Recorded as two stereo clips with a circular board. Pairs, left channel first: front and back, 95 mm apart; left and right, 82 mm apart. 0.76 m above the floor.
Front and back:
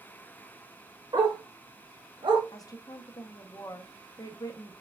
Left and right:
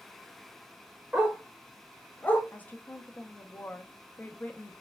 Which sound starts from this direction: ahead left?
A woman speaking, at 2.5 s.